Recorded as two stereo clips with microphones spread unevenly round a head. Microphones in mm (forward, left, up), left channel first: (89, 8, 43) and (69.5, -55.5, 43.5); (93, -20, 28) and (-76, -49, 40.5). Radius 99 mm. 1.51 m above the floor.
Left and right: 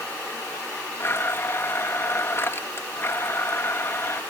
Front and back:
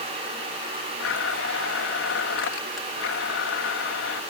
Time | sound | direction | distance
1.0 | a blender | 20° left | ?